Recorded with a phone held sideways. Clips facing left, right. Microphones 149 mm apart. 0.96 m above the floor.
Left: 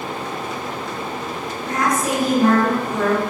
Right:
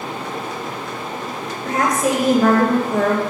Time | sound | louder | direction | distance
1.6 | a woman speaking | right 2 dB | 85° right | 4 m